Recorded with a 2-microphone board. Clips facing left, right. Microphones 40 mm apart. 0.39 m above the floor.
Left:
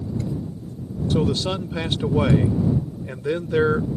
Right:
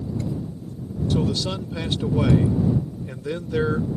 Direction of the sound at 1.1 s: 25° left (ahead or behind).